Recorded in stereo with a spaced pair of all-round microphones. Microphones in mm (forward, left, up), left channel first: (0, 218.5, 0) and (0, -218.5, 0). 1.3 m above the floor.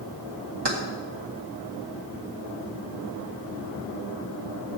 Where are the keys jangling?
65° right (ahead or behind), 1.9 m.